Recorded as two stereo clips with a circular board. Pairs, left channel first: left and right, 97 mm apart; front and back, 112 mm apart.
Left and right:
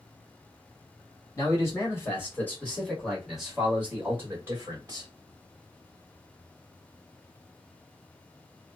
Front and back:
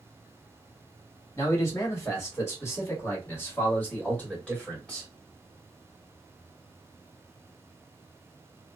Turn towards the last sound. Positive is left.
turn(degrees=-80)